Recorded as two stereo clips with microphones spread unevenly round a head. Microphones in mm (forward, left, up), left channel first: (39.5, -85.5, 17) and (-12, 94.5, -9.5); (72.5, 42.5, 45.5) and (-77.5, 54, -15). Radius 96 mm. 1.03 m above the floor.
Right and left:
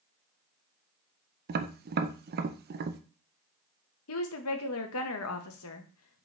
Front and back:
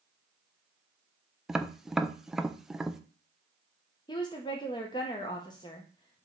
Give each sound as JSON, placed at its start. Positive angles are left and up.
{"t": 1.5, "sound": "tapping", "azimuth_deg": 105, "distance_m": 0.6}
{"t": 4.1, "sound": "a woman speaking", "azimuth_deg": -80, "distance_m": 1.1}